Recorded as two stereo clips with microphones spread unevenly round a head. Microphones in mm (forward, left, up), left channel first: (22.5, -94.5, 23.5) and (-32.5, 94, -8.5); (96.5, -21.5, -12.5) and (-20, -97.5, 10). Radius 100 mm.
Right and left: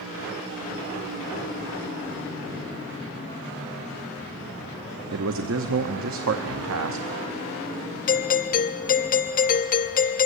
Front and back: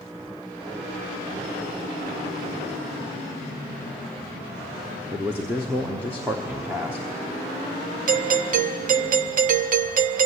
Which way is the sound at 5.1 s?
135° left.